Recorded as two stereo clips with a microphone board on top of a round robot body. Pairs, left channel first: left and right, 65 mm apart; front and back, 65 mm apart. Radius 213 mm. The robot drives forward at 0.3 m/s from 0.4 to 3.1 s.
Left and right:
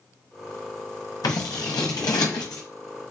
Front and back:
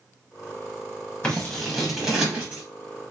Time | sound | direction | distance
1.2 | scissors | 70° left | 0.5 m